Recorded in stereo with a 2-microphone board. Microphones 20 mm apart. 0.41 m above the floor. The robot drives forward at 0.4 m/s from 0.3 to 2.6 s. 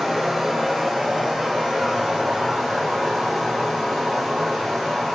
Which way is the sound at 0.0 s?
15° right (ahead or behind).